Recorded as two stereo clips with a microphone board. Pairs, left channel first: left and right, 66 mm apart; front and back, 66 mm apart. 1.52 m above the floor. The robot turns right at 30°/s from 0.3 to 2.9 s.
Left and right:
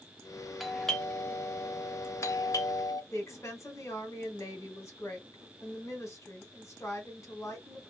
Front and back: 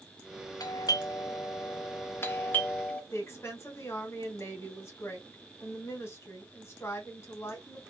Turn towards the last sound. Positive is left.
turn(degrees=45)